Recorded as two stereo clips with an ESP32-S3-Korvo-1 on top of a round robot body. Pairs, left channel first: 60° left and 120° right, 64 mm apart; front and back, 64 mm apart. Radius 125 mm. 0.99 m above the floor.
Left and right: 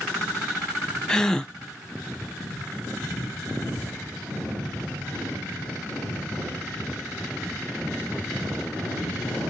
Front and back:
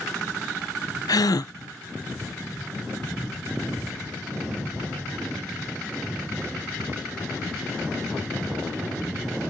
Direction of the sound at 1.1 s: 20° right.